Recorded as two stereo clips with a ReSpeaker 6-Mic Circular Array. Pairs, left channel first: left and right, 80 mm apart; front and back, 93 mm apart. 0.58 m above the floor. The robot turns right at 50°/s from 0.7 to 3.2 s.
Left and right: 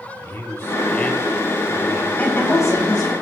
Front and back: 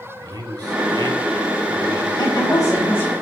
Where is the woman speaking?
20° left, 3.5 m; by 3.1 s 70° left, 3.5 m.